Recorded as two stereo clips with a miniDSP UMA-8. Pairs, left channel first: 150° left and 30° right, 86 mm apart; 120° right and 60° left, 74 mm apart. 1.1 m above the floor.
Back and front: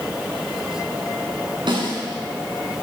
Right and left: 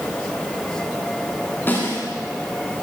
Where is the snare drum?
55° right, 8.5 m.